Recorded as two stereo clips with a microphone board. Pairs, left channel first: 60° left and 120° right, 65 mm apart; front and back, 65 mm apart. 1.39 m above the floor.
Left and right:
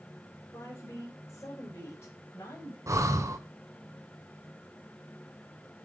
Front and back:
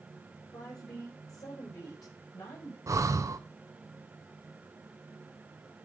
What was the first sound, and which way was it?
A woman speaking, 10° left.